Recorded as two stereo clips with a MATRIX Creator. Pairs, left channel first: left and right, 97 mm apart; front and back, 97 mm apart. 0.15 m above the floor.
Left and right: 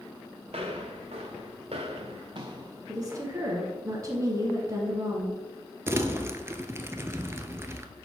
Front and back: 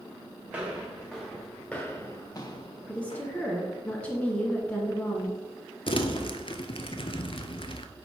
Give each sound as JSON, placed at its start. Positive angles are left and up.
{"t": 0.5, "sound": "footsteps", "azimuth_deg": -105, "distance_m": 1.7}
{"t": 2.9, "sound": "a woman speaking", "azimuth_deg": -65, "distance_m": 1.4}
{"t": 5.9, "sound": "crumpling", "azimuth_deg": -25, "distance_m": 0.5}